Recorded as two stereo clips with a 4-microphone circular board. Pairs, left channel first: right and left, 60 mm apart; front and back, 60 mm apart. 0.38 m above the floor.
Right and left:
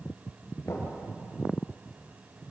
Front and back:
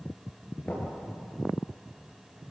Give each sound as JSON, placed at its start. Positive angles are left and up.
{"t": 0.7, "sound": "knocking", "azimuth_deg": -60, "distance_m": 6.0}